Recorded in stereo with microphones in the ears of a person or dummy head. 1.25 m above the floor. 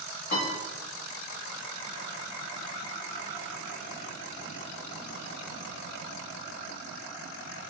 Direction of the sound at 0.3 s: 45° left (ahead or behind).